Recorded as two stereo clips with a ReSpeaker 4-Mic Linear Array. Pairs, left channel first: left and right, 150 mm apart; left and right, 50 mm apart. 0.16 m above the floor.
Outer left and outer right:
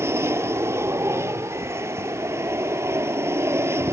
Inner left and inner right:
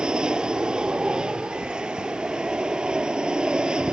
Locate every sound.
0.0 s an aircraft: 15° right (ahead or behind)